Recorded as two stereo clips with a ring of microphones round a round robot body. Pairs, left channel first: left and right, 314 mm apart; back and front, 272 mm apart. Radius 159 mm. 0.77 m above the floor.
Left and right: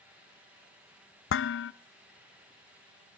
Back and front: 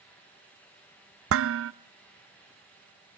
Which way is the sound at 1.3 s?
40° left.